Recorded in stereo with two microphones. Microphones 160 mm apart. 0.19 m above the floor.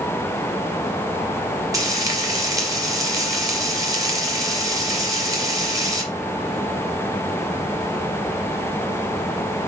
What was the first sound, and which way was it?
Frying, 20° right (ahead or behind).